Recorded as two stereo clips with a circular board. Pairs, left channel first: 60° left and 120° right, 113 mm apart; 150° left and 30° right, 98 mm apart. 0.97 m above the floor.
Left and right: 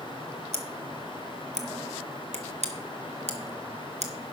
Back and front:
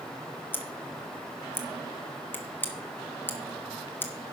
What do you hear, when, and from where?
0.5 s scissors: 140° right, 1.2 m